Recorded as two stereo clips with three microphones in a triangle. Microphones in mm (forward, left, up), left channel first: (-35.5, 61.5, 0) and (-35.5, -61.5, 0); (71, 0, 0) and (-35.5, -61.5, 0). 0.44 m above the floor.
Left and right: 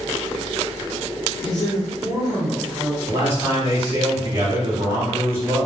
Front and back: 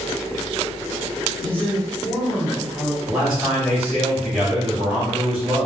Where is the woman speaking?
105° left, 1.1 m; by 3.0 s 5° left, 1.5 m.